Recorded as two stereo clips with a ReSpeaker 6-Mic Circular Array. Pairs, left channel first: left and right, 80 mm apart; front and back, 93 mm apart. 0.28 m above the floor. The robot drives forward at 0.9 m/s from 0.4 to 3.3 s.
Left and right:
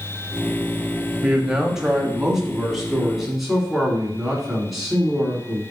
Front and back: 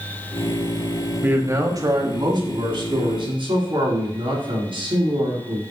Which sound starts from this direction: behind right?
A man speaking, at 1.2 s.